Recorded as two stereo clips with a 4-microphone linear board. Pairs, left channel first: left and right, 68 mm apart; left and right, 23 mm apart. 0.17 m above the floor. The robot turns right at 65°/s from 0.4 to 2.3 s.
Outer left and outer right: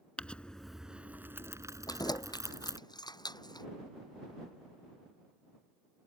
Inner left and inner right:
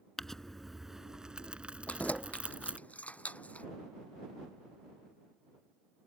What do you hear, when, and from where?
0.2 s crumpling: 160° left; by 2.8 s 75° right
1.9 s keys jangling: 65° left (ahead or behind); by 3.7 s 80° left